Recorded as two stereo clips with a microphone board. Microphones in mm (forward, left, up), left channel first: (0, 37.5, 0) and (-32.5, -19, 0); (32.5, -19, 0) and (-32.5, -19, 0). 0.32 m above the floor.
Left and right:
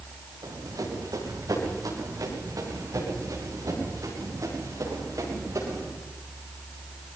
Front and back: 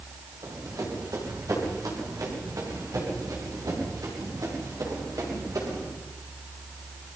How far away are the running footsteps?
About 7.5 m.